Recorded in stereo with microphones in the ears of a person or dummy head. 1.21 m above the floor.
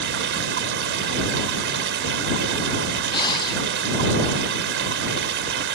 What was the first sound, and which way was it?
Running water, 60° right (ahead or behind).